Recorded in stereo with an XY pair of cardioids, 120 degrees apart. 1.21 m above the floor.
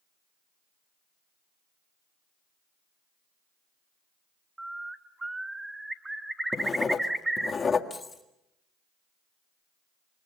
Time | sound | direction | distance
4.6 | a bird | 10° right | 1.1 m
6.5 | writing | 30° left | 1.8 m
7.9 | keys jangling | 15° left | 3 m